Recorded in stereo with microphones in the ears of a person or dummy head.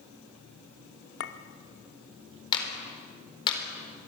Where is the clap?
25° left (ahead or behind), 4.5 m.